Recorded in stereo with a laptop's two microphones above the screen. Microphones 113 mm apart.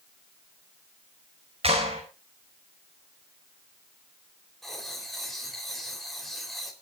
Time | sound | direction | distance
1.6 | a clap | 60° right (ahead or behind) | 5 m
4.6 | writing | centre (ahead or behind) | 3.5 m